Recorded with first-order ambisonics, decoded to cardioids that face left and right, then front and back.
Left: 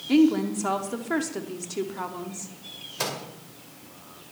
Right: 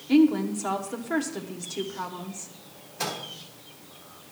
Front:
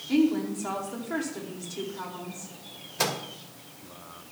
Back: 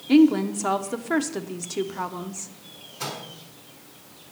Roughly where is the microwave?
Ahead.